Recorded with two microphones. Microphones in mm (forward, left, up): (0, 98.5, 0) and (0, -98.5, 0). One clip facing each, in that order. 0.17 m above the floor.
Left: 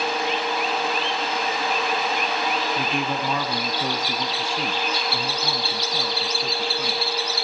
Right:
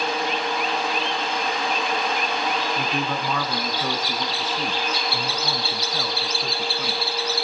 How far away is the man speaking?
About 1.8 m.